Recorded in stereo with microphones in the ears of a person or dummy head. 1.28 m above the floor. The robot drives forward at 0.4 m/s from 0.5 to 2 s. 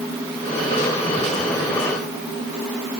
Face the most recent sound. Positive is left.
No sound to turn to.